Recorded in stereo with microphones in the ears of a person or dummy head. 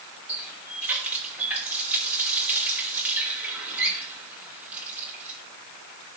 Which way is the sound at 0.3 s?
5° right (ahead or behind).